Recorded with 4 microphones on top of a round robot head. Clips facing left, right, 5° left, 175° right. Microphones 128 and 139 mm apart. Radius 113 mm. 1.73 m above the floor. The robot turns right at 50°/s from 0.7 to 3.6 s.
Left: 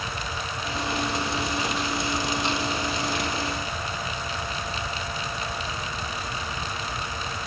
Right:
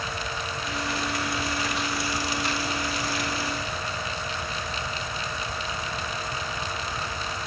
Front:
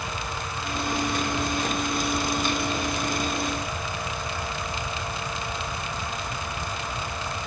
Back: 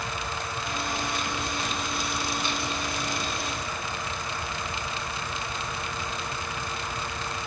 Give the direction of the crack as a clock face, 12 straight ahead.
No crack in this recording.